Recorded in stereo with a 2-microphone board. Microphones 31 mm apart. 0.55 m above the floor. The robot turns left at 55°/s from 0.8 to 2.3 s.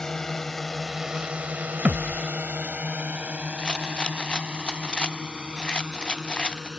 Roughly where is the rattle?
Left.